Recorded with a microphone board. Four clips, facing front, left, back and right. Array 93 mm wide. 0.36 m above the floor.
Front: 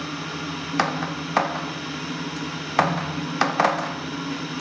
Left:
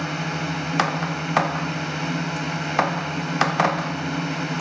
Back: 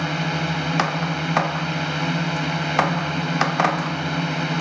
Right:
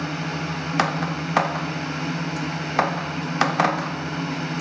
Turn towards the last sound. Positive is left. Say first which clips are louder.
# left 1 dB, back 6 dB
turn(degrees=170)